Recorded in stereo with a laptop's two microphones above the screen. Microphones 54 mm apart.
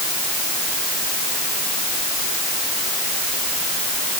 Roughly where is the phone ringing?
I don't hear a phone ringing.